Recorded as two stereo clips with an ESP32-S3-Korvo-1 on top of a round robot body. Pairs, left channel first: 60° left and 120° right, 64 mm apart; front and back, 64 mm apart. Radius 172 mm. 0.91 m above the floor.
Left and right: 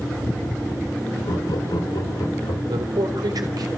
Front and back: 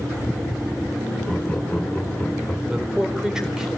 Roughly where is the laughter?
Left.